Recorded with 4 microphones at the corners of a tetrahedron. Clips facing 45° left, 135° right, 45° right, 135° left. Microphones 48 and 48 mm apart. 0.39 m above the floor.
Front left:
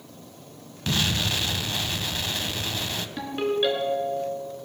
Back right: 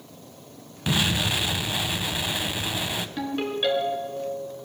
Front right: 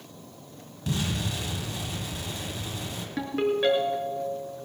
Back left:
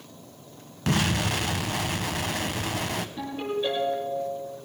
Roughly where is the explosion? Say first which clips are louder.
Back right 2 dB, back left 5 dB; behind left.